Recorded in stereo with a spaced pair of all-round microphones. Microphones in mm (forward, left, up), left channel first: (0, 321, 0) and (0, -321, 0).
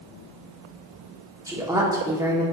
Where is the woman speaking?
5° right (ahead or behind), 0.8 m.